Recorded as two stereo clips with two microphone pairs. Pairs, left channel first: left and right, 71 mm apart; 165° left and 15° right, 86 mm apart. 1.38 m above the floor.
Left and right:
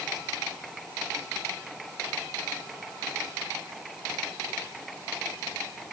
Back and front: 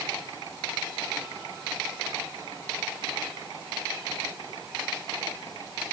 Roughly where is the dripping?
No dripping in this recording.